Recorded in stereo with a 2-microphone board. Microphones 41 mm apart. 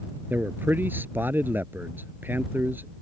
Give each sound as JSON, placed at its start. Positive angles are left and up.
{"t": 0.3, "sound": "a man speaking", "side_deg": -55}